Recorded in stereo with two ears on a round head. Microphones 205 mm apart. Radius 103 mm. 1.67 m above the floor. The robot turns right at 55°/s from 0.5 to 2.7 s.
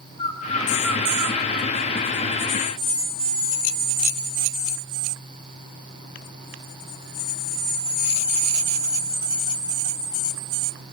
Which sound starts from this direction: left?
A bird, at 0.2 s.